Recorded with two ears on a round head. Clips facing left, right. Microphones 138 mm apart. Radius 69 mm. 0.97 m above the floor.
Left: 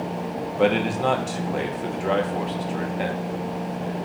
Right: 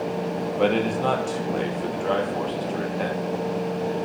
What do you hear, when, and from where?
0.6 s a man speaking: 5° left (ahead or behind), 0.9 m